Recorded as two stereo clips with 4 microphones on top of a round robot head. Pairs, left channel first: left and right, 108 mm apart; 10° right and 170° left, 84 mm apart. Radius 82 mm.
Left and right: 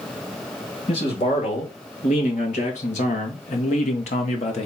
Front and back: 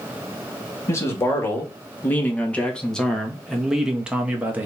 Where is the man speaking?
45° left, 2.5 m; by 4.7 s 105° left, 1.6 m.